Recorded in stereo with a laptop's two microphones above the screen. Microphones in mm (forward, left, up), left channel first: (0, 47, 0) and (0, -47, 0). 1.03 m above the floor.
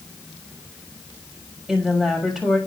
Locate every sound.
1.7 s a woman speaking: 5° right (ahead or behind), 6.5 m